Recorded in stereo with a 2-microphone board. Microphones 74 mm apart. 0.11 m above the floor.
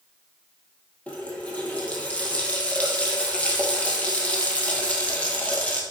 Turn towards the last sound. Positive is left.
turn(degrees=20)  # may be behind; listen again after turning